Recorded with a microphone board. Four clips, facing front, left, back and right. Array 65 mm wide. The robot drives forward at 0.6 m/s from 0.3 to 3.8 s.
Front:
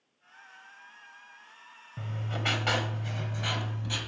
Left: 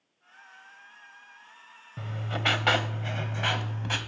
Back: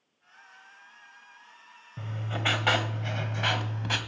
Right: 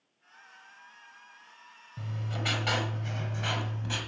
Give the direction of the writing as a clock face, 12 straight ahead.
9 o'clock.